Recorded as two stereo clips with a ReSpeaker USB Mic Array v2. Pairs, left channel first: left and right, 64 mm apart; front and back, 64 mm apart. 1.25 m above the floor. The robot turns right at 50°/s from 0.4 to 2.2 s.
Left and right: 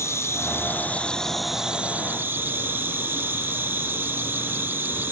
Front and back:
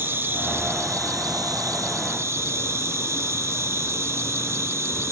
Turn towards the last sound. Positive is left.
turn(degrees=-140)